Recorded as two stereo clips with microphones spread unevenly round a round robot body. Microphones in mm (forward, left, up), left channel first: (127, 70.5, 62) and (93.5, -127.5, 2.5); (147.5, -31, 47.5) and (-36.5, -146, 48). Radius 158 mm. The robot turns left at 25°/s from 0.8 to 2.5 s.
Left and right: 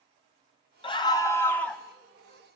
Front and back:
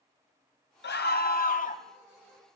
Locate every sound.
0.8 s a scream: 10° left, 2.5 m; by 1.8 s 15° right, 2.5 m